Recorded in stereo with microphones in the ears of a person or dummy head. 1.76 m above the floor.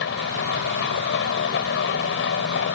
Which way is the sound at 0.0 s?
75° left (ahead or behind).